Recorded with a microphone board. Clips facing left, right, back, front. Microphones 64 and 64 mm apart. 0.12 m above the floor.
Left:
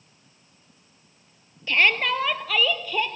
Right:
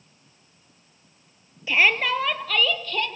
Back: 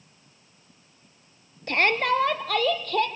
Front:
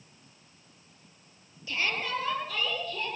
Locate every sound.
1.7 s a shout: 170° right, 2.5 m; by 3.1 s 165° left, 4 m